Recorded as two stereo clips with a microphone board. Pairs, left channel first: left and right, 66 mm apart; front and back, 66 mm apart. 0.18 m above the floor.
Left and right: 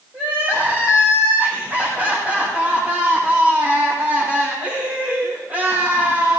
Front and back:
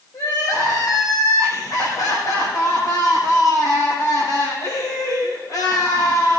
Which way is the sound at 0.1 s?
20° right.